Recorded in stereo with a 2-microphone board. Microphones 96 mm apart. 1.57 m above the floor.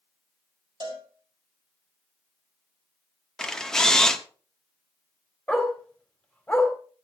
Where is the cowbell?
50° right (ahead or behind), 3 m.